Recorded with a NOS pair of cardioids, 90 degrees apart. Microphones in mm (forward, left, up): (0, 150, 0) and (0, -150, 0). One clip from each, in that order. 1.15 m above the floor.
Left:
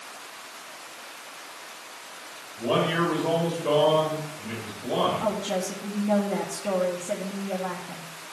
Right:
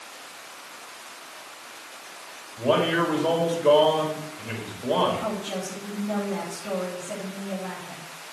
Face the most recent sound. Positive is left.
turn(degrees=45)